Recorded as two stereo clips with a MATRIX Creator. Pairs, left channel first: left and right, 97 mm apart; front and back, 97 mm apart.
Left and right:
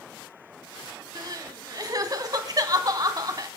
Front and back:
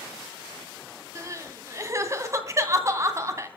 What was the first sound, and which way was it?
Crying, 130° right.